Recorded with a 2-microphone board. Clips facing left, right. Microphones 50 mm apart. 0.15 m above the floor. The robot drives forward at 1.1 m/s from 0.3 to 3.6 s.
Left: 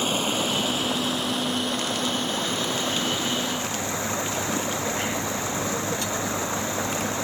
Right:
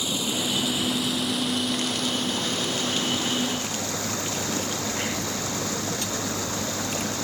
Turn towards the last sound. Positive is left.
turn(degrees=25)  # may be behind; listen again after turning